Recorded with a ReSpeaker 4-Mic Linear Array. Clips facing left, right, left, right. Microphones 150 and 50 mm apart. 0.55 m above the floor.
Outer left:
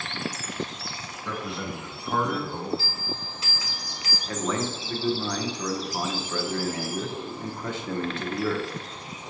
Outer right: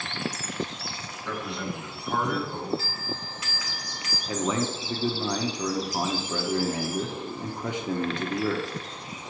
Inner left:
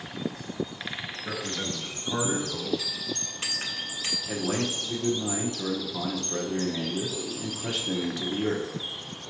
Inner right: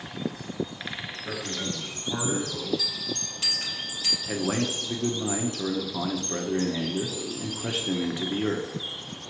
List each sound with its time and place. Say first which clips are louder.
1.2 s a man speaking: even, even; 5° left (ahead or behind), 1.3 m
2.8 s a bell: even, inner right 1 dB; 30° left (ahead or behind), 1.2 m
4.3 s a man speaking: outer right 1 dB, inner right 2 dB; 15° right (ahead or behind), 0.8 m